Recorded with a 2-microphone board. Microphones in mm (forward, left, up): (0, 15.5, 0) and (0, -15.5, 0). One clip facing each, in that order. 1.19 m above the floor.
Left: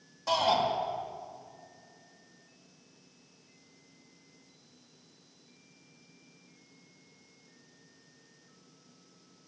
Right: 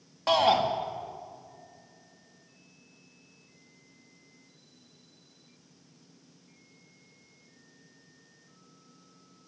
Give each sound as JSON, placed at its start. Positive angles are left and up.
{"t": 0.3, "sound": "a shout", "side_deg": -45, "distance_m": 2.0}